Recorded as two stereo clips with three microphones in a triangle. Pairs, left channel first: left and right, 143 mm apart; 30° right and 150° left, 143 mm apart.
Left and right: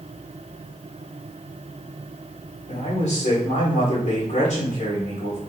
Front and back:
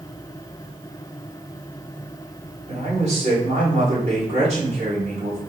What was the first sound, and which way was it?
A man speaking, 120° left.